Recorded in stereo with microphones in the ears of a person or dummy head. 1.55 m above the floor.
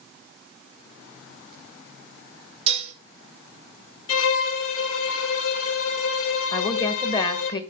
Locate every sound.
2.7 s dishes clattering: 35° right (ahead or behind), 3.5 m
4.1 s a violin: 85° left, 3.5 m
6.5 s a woman speaking: 30° left (ahead or behind), 1.4 m